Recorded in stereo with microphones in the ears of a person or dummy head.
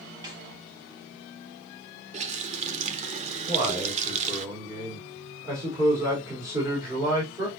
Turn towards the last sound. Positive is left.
turn(degrees=-10)  # may be behind; listen again after turning